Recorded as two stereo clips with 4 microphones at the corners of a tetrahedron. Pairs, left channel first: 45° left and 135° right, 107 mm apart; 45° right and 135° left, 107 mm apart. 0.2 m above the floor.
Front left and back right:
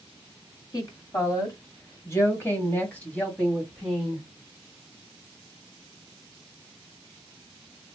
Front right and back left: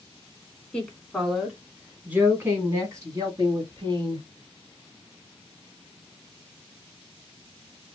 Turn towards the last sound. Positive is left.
turn(degrees=130)